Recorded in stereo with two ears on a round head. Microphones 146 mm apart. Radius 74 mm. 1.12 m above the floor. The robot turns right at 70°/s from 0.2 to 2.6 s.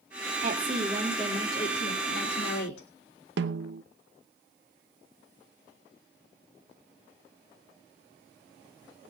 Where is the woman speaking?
45° right, 2.5 m; by 2.9 s 105° left, 2.5 m.